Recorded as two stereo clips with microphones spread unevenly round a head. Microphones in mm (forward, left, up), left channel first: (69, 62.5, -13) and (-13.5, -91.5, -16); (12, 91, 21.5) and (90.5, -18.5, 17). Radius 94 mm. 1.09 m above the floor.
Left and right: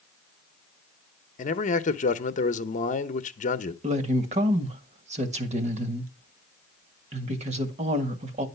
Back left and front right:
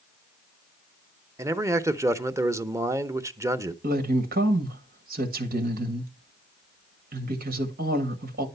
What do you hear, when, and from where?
1.4 s a man speaking: 15° left, 0.9 m
3.8 s a woman speaking: 65° right, 1.7 m